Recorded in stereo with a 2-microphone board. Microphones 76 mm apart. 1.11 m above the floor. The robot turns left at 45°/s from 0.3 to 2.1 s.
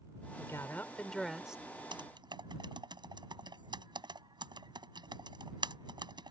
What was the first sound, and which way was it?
A woman speaking, 45° left.